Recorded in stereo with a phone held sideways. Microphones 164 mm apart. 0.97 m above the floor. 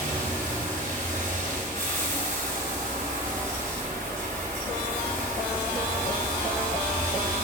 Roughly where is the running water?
Right.